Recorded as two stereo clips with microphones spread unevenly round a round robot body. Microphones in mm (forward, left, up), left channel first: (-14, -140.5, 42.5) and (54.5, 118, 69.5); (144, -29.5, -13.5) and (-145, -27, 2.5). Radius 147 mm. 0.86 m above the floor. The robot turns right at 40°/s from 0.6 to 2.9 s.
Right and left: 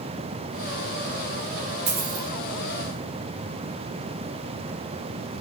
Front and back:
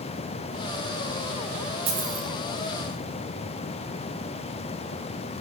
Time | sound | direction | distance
1.9 | a dropped coin | 130° left | 3 m